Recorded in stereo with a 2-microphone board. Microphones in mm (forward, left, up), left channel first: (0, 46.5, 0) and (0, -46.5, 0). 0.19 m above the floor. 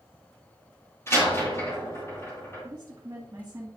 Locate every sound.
1.1 s a door slam: 30° left (ahead or behind), 4.5 m
2.6 s a woman speaking: 30° right (ahead or behind), 2 m